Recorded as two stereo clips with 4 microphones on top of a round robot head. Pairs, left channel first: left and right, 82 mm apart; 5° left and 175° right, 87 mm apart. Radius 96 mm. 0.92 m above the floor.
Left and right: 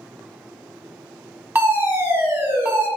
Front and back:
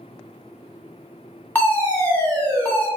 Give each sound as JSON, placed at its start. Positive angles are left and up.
{"t": 1.6, "sound": "a fire alarm", "azimuth_deg": -45, "distance_m": 1.6}